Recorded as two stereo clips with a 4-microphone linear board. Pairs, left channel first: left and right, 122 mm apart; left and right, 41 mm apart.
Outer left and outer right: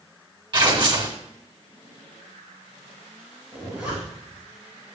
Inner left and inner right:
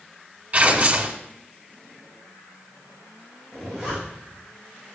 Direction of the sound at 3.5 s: 10° right (ahead or behind).